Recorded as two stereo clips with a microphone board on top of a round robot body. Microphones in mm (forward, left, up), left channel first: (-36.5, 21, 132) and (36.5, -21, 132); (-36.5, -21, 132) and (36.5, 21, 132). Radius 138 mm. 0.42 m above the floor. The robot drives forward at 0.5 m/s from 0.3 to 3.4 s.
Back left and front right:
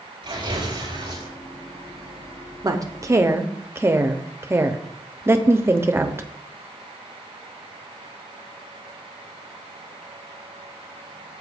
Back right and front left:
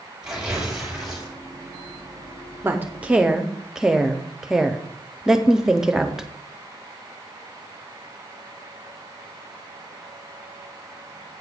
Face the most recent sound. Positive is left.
turn(degrees=-50)